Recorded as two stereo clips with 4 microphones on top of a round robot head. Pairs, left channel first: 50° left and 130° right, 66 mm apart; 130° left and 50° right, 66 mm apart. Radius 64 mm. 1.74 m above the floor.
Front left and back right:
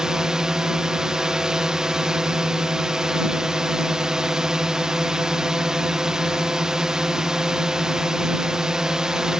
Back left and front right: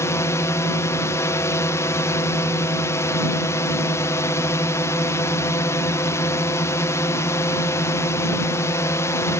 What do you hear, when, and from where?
0.0 s a drone: 155° left